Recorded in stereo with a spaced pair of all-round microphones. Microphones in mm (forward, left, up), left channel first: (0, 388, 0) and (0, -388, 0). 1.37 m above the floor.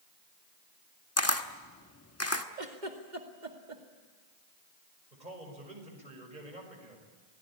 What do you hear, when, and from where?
1.2 s a camera shutter: 20° left (ahead or behind), 1.2 m
2.6 s a giggle: 70° right (ahead or behind), 2.5 m
5.1 s a man speaking: 70° right (ahead or behind), 5.5 m